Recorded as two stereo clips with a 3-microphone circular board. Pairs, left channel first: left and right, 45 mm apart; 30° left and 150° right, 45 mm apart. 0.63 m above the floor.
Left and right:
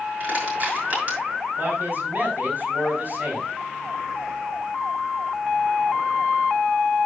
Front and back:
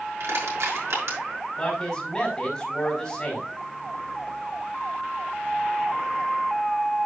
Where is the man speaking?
45° right, 5 m.